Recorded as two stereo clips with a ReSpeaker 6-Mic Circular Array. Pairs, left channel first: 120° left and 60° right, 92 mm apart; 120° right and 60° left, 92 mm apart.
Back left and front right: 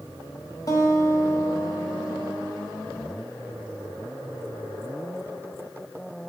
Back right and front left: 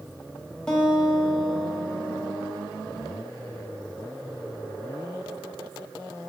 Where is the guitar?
160° left, 1.5 m.